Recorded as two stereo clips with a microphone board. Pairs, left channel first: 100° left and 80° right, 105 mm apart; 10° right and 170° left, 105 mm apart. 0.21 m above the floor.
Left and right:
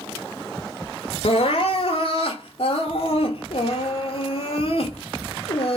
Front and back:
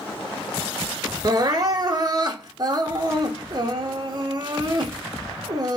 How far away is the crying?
About 0.7 m.